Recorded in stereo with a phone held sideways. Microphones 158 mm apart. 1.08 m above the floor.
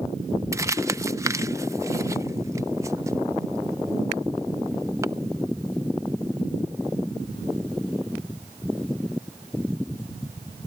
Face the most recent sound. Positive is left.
turn(degrees=-20)  # may be behind; listen again after turning